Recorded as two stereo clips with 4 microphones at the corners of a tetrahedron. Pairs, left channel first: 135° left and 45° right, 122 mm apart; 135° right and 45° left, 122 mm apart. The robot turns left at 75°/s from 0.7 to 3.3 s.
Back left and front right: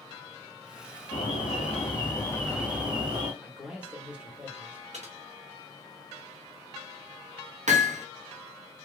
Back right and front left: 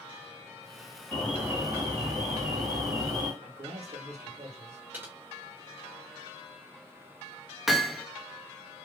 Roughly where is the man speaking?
Ahead left.